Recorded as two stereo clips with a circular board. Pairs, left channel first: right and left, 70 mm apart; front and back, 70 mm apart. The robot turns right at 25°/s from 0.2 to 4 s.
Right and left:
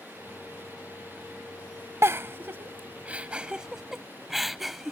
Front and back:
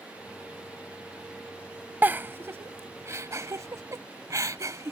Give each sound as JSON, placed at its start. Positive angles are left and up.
{"t": 2.0, "sound": "a giggle", "azimuth_deg": 125}